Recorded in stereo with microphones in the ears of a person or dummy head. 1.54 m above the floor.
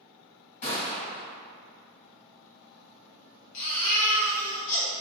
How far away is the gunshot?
About 1.9 m.